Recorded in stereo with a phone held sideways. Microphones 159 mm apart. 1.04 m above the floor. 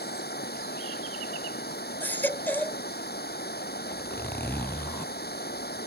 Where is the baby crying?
10° left (ahead or behind).